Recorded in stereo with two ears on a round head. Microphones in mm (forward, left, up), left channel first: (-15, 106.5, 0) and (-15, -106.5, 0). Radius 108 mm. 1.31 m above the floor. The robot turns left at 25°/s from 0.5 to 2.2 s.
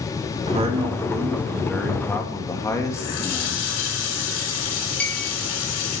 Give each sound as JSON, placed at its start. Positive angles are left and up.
{"t": 0.5, "sound": "a man speaking", "azimuth_deg": -150, "distance_m": 2.0}
{"t": 2.9, "sound": "a running tap", "side_deg": 85, "distance_m": 3.5}
{"t": 5.0, "sound": "a clink", "side_deg": 5, "distance_m": 2.0}